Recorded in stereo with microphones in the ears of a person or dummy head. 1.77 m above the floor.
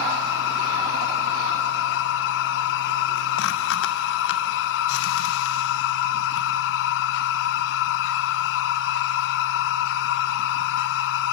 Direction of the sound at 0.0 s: 70° left (ahead or behind).